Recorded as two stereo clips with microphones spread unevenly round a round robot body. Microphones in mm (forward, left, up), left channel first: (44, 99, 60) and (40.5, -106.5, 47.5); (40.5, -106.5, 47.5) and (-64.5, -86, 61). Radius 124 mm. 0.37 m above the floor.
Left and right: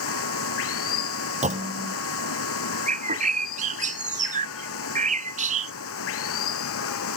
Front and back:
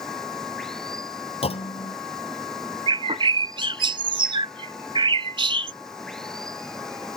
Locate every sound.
0.0 s running water: 75° left
1.4 s a clunk: 35° right
2.9 s a bird: 150° right